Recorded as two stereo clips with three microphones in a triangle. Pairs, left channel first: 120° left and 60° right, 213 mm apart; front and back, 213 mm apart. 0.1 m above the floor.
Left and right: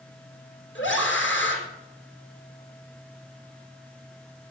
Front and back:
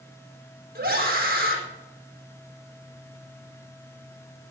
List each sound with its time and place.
0.8 s a scream: 140° left, 4 m